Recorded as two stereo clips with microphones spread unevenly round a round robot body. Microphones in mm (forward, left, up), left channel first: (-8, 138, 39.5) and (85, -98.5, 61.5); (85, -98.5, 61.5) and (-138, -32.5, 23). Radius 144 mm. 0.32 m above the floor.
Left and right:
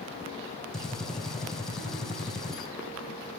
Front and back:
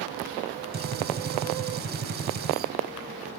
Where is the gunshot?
165° right, 1.5 m.